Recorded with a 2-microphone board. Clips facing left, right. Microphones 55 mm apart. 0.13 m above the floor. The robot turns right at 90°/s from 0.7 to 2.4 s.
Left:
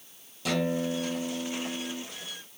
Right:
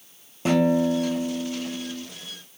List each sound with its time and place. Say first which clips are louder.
0.5 s a guitar: right 8 dB; 35° right, 0.9 m; by 2.0 s 85° left, 0.9 m